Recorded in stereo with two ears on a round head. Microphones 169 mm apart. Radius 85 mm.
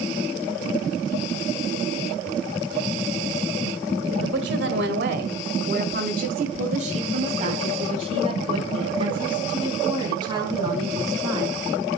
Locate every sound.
4.2 s a woman speaking: 70° right (ahead or behind), 1.9 m; by 11.6 s 20° right (ahead or behind), 5 m